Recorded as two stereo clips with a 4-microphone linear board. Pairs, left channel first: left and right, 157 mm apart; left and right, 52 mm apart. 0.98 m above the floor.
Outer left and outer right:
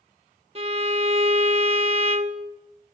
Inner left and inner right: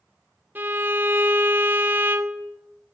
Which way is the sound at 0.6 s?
40° right (ahead or behind).